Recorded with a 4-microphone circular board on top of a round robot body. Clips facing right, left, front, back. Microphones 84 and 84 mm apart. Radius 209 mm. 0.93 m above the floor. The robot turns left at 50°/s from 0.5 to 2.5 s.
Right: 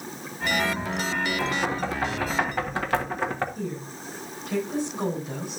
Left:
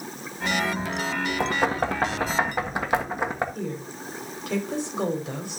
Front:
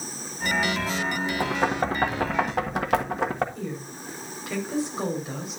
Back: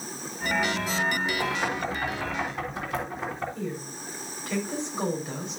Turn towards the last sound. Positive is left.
turn(degrees=85)